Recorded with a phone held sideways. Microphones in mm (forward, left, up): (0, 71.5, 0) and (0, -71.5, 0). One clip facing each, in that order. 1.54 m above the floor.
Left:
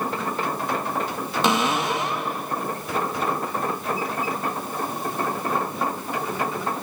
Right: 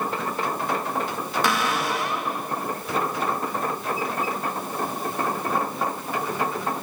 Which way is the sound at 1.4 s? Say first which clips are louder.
Left 4 dB; 20° left (ahead or behind).